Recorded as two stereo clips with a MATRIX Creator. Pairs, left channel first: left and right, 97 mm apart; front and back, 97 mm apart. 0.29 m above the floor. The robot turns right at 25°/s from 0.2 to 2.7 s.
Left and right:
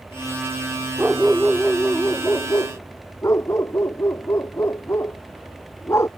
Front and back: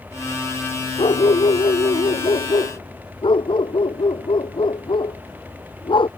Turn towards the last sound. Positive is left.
turn(degrees=30)